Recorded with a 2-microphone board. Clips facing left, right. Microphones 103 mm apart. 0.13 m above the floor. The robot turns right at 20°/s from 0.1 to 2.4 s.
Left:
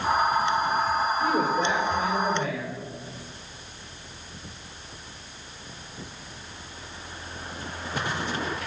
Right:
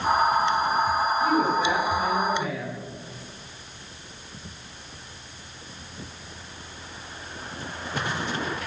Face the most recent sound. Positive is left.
turn(degrees=55)  # may be behind; listen again after turning